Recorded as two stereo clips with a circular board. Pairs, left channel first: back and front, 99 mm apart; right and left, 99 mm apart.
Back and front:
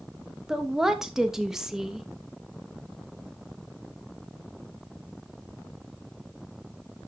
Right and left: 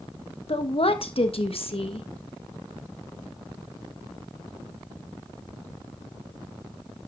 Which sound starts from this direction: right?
A woman speaking, at 0.5 s.